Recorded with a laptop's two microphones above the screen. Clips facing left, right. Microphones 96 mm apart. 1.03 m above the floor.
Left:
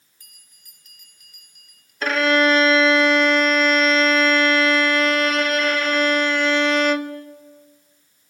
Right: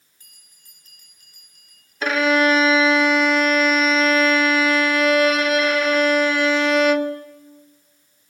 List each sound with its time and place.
0.2 s a bell: 35° right (ahead or behind), 4.5 m
2.0 s a violin: centre (ahead or behind), 0.9 m